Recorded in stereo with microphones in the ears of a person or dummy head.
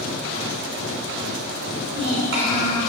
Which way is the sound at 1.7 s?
60° right (ahead or behind).